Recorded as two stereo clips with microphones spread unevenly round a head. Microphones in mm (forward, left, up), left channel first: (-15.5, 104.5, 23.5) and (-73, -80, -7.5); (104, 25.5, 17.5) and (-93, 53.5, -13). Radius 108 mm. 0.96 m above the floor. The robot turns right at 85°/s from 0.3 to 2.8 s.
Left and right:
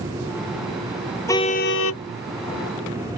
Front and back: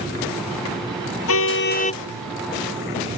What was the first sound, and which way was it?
A car horn, 5° right.